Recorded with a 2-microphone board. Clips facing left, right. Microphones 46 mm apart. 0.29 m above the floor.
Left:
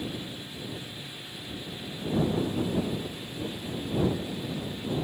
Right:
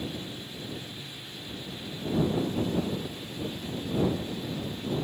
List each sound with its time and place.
Only background noise.